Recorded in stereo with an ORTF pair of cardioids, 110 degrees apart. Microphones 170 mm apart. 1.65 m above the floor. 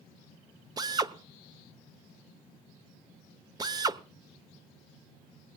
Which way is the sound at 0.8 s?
25° right.